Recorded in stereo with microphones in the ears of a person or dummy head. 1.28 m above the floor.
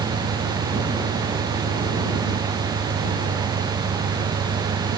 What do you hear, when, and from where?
0.0 s an engine running: 55° right (ahead or behind)